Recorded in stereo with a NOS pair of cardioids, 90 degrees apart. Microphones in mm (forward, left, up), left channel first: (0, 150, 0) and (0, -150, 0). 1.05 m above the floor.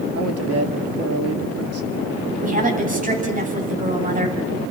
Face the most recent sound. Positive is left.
turn(degrees=-25)